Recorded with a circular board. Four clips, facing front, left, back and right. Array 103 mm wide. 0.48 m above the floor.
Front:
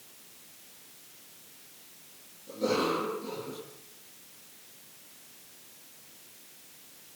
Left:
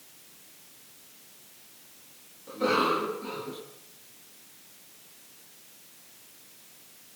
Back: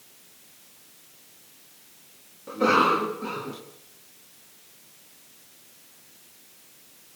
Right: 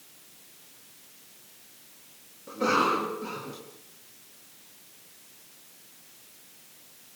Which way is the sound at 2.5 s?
170° right.